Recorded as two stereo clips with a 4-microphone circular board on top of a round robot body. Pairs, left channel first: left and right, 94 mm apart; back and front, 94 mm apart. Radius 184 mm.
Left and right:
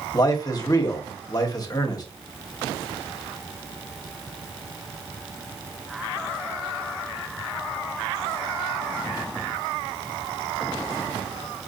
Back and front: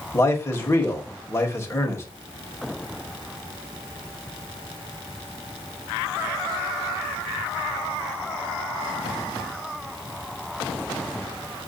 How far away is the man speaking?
About 1.2 m.